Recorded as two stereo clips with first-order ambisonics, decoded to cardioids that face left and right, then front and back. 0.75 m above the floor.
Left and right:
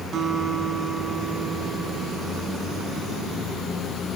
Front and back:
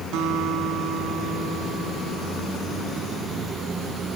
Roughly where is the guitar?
Behind right.